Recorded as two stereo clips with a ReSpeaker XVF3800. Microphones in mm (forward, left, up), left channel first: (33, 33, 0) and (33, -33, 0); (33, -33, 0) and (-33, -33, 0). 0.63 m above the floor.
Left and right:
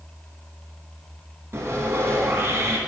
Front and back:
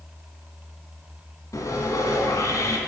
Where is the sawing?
40° right, 2.0 m.